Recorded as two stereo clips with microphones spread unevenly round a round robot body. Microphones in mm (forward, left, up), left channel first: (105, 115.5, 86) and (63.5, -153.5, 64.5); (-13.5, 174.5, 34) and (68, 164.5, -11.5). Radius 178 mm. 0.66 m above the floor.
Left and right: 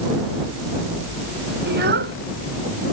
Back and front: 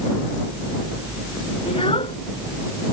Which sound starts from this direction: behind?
A child speaking, at 1.7 s.